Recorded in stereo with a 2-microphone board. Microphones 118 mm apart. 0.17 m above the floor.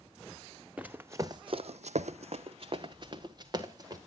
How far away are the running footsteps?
About 0.9 m.